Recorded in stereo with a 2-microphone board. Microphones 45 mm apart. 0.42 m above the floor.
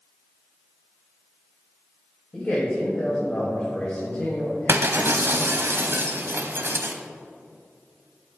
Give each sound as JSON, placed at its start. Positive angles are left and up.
{"t": 2.3, "sound": "a man speaking", "side_deg": 40, "distance_m": 2.5}
{"t": 4.7, "sound": "breaking glass", "side_deg": -65, "distance_m": 0.9}